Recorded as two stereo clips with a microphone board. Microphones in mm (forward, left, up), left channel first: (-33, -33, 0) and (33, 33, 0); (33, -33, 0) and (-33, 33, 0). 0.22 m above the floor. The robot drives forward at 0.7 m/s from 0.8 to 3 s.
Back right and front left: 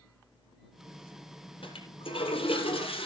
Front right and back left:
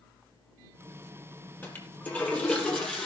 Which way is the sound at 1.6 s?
115° right.